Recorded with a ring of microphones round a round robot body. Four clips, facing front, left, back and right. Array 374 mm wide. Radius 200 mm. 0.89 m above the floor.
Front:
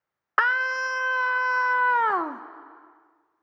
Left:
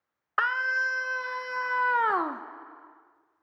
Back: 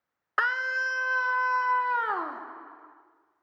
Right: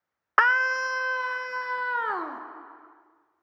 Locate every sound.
0.4 s a scream: 65° right, 1.1 m; by 2.4 s 35° left, 1.2 m